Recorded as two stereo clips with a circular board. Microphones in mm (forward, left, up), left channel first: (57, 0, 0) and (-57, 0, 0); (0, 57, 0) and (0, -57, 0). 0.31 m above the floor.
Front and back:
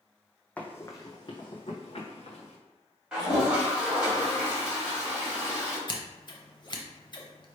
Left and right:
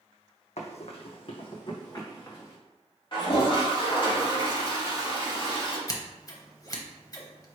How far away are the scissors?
About 0.7 m.